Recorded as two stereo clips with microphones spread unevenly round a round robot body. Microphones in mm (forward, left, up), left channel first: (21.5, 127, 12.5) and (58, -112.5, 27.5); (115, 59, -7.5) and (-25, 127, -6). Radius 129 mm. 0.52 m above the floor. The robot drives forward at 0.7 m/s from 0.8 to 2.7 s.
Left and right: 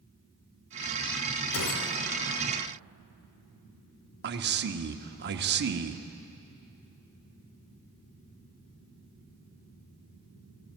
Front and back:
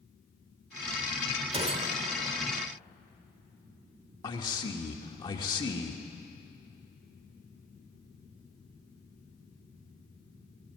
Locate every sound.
1.5 s a gunshot: 110° left, 1.8 m; by 2.4 s 130° left, 2 m
4.2 s a man speaking: 75° right, 1.2 m